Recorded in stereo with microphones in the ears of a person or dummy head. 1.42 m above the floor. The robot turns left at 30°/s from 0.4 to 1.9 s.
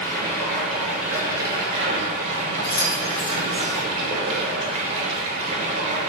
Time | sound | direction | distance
0.0 | running water | 10° left | 0.7 m
2.6 | keys jangling | 50° left (ahead or behind) | 0.6 m